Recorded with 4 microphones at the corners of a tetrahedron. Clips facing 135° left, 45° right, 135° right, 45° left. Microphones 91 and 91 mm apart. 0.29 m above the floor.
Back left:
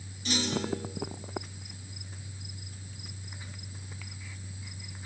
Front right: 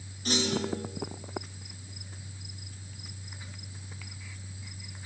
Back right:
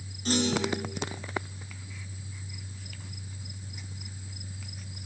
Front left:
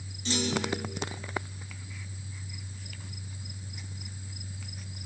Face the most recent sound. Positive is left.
turn(degrees=-90)